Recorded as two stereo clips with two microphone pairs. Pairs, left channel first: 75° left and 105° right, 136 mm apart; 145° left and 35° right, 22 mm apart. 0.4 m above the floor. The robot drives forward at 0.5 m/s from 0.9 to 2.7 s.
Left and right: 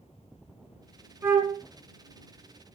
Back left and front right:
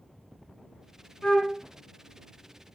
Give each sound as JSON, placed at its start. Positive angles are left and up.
{"t": 1.2, "sound": "a flute", "azimuth_deg": -175, "distance_m": 0.8}